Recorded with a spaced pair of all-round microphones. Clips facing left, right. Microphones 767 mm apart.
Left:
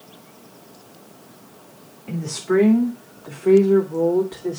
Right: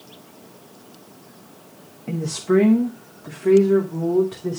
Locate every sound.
2.1 s a woman speaking: 65° right (ahead or behind), 1.9 m; by 4.6 s 40° right (ahead or behind), 3.5 m